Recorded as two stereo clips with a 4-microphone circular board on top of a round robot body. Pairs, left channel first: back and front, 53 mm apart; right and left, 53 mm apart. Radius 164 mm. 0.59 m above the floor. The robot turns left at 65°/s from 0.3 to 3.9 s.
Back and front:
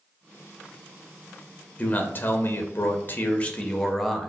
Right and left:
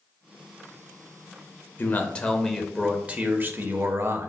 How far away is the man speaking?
About 1.1 m.